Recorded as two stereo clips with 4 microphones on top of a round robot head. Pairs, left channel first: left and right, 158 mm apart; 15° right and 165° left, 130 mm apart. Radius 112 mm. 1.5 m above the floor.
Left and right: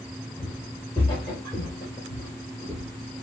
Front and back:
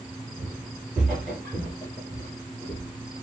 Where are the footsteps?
105° left, 1.5 m; by 3.2 s 40° right, 1.8 m.